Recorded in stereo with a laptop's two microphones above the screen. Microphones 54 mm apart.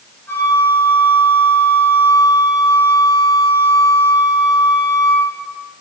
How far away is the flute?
About 1.1 m.